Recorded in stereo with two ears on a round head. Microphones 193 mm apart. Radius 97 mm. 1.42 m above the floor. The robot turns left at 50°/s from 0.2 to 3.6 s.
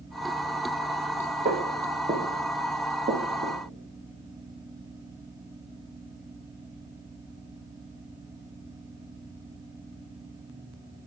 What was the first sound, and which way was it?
Footsteps, 40° right (ahead or behind).